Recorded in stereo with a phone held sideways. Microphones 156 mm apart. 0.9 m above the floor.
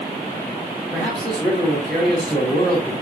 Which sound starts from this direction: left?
A man speaking, at 0.9 s.